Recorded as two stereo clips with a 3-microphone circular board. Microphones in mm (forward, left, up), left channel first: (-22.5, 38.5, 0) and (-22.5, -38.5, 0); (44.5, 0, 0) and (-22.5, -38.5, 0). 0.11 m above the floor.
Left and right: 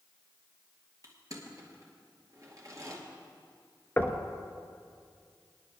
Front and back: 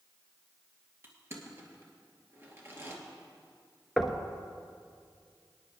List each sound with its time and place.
1.0 s crushing: 105° right, 2 m
4.0 s knocking: 125° left, 0.9 m